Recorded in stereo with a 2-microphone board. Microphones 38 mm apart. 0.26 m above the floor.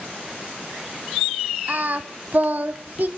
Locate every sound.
1.7 s singing: 50° right (ahead or behind), 0.7 m